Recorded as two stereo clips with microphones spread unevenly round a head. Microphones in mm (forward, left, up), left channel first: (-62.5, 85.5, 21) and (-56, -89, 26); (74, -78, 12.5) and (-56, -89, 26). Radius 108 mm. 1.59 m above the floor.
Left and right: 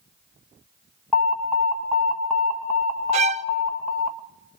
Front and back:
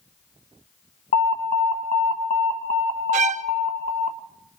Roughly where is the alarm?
Ahead.